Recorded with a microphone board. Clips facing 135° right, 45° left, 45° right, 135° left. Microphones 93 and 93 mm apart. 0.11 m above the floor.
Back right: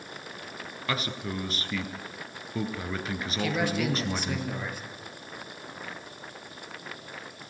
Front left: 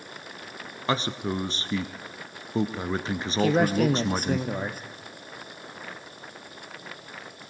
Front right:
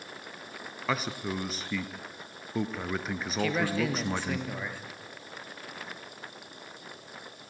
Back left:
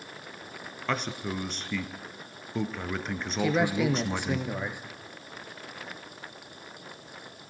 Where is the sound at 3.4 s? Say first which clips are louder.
Front left 7 dB, back left 3 dB; 70° left, 2.5 m.